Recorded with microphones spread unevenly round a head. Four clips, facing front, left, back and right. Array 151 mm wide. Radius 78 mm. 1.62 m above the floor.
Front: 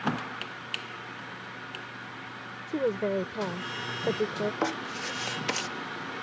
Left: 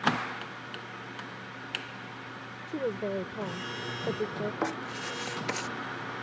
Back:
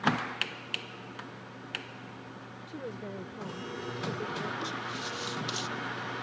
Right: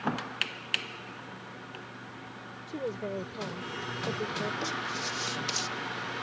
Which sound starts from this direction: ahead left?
Writing, at 4.6 s.